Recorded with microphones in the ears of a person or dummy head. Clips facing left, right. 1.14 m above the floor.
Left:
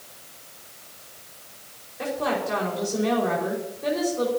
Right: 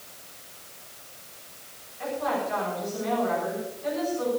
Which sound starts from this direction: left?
A woman speaking, at 2.0 s.